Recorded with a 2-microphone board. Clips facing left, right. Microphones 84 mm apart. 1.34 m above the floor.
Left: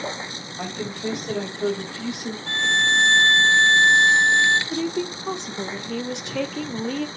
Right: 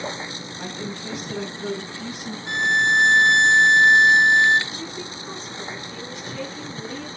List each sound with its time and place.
0.6 s a woman speaking: 60° left (ahead or behind), 3.5 m; by 2.4 s 80° left, 3 m
2.5 s a violin: 15° right (ahead or behind), 0.7 m
4.7 s a woman speaking: 80° left, 1.1 m